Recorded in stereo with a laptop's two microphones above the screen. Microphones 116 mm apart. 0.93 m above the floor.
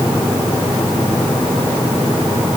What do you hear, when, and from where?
Only background noise.